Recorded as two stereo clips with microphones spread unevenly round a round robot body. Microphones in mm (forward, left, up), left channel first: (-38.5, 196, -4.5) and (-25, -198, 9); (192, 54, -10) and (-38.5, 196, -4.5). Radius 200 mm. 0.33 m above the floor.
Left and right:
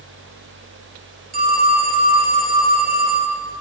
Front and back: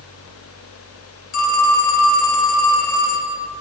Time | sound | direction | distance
1.3 | a phone ringing | 15° right | 1.7 m